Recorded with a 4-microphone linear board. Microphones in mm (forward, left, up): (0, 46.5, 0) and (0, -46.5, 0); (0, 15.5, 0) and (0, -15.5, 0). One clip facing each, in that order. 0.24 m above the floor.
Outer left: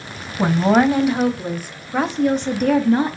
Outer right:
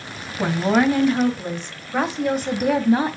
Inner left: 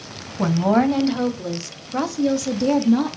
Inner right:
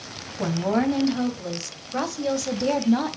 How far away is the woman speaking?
About 1.4 m.